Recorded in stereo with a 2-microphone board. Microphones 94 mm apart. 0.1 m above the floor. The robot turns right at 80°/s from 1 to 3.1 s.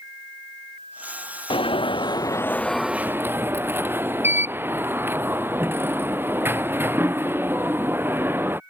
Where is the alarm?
75° left; by 8.6 s 155° right.